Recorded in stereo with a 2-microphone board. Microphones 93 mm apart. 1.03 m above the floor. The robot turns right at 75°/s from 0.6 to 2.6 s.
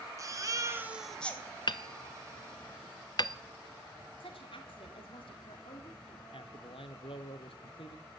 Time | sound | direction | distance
0.2 | a baby crying | 35° right | 1.6 m
1.7 | hammering | 50° left (ahead or behind) | 0.6 m
4.2 | a woman speaking | 75° left (ahead or behind) | 2.5 m
6.3 | a man speaking | 75° left (ahead or behind) | 1.1 m